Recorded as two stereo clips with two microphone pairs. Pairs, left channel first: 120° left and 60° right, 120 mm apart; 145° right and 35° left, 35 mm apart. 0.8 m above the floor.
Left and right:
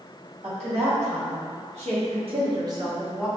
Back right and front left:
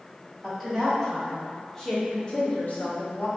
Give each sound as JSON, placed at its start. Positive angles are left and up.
{"t": 0.4, "sound": "a woman speaking", "azimuth_deg": -55, "distance_m": 1.9}